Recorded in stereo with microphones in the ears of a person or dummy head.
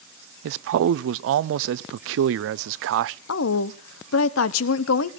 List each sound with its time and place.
0.4 s a man speaking: 70° right (ahead or behind), 0.5 m
3.3 s a woman speaking: 85° left, 0.8 m